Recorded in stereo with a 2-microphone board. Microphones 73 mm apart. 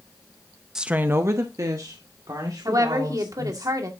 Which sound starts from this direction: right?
A woman speaking, at 2.6 s.